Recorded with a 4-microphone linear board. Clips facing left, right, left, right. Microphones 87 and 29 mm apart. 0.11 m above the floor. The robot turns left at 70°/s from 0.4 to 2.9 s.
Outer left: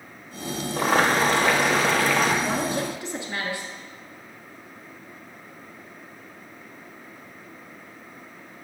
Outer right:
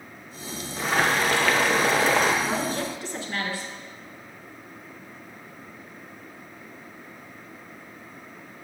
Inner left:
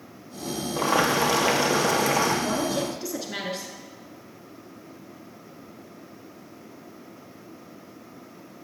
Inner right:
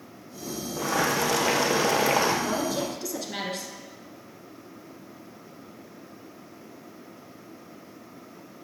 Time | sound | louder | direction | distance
0.8 | boiling | outer left 3 dB, inner left 3 dB | 65° left | 1.2 m
2.4 | a woman speaking | outer left 1 dB, inner left 1 dB | 10° left (ahead or behind) | 1.1 m